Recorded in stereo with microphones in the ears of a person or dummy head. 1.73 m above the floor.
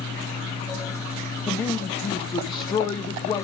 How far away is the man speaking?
About 1.4 m.